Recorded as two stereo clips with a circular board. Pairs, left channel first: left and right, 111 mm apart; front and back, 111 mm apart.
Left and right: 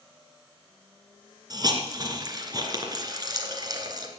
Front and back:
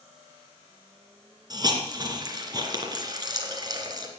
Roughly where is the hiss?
Behind right.